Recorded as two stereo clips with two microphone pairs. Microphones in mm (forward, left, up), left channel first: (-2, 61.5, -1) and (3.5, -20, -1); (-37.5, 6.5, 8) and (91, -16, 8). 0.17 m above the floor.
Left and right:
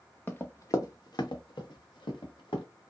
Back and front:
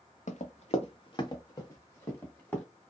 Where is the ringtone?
No ringtone in this recording.